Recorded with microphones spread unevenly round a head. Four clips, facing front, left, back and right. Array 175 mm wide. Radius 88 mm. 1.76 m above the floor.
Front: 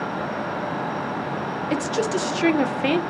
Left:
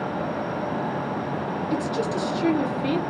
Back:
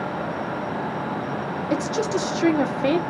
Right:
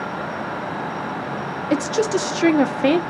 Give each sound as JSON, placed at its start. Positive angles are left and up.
{"t": 1.7, "sound": "a woman speaking", "azimuth_deg": -90, "distance_m": 0.5}